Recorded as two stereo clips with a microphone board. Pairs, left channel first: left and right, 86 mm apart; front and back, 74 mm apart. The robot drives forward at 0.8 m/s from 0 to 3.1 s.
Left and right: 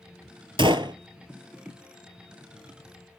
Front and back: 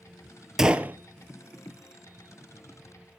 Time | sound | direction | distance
0.6 | a gunshot | 95° right | 0.7 m